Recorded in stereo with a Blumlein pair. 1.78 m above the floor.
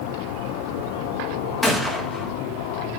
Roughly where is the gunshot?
Ahead.